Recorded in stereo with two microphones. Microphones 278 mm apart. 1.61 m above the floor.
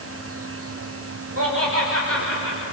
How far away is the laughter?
About 5 m.